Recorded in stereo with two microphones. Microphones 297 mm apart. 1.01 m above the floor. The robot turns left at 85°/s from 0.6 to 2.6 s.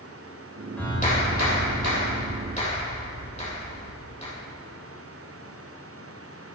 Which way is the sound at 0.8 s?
175° left.